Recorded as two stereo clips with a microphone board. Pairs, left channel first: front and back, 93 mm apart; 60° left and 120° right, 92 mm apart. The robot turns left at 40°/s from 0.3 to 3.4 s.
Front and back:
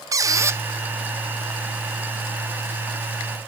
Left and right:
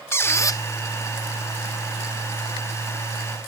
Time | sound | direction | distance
0.1 | a squeak | 125° left | 0.8 m